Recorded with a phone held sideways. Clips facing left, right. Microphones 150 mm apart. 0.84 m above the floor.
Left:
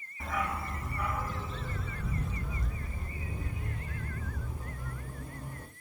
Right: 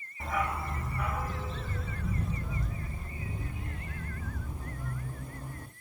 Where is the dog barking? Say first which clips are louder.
Right 2 dB; 30° right (ahead or behind), 2 m; by 5.7 s 25° right (ahead or behind), 9 m.